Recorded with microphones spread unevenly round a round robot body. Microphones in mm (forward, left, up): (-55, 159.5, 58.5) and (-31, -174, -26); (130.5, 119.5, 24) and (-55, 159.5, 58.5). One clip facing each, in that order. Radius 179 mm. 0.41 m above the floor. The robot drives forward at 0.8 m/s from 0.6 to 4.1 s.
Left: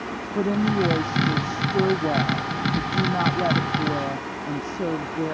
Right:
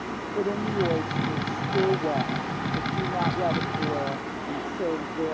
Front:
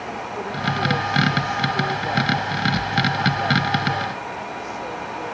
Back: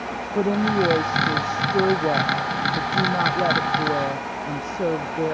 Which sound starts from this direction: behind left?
A woman speaking, at 0.3 s.